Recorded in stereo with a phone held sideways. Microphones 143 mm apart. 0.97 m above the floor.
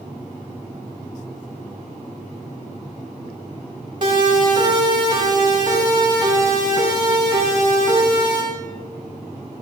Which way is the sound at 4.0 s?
35° right (ahead or behind).